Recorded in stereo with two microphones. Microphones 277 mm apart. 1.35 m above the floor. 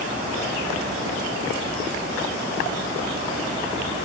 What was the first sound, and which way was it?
Only background noise.